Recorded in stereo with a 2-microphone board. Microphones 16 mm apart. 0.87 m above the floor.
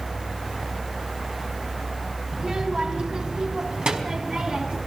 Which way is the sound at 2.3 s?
55° right (ahead or behind).